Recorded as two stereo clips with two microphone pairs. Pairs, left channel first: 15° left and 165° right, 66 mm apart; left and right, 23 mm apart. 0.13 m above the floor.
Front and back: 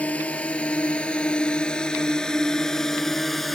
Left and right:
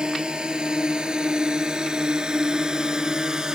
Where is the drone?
55° right; by 3.6 s 75° right.